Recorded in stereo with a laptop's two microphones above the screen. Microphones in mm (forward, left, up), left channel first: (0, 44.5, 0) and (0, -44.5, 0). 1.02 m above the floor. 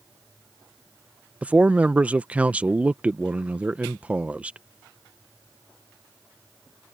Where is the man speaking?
15° right (ahead or behind).